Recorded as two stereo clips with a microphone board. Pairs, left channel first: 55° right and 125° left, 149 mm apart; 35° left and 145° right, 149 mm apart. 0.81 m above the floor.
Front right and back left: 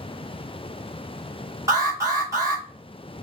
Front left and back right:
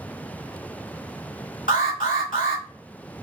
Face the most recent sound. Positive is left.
turn(degrees=55)